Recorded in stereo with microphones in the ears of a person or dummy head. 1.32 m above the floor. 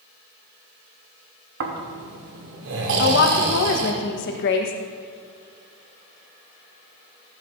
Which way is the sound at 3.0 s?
60° left (ahead or behind).